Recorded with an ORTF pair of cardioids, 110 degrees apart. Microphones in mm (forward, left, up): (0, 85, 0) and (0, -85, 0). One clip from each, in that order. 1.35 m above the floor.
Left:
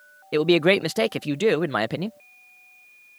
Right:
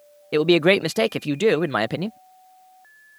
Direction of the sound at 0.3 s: 5° right.